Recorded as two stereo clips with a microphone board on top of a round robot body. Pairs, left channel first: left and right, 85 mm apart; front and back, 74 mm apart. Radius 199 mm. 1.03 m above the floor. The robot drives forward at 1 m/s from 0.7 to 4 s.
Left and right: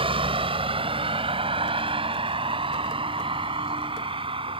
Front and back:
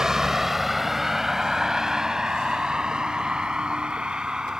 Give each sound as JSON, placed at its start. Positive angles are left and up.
{"t": 0.0, "sound": "a vehicle", "azimuth_deg": -100}